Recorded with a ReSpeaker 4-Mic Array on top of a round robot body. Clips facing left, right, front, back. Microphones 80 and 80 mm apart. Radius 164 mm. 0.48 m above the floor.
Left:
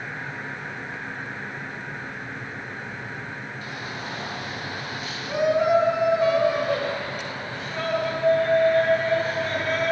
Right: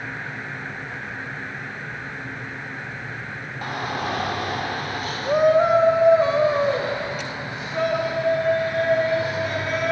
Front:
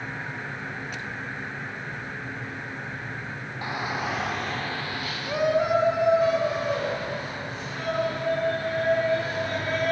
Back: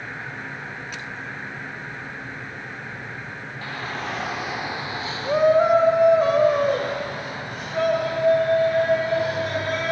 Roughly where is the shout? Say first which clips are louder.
Right 11 dB, front 2 dB; right.